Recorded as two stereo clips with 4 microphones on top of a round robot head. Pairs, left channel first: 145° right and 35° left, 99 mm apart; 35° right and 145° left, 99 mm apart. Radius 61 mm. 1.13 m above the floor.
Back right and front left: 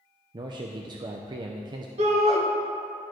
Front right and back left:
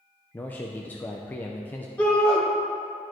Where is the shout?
40° left, 1.9 m.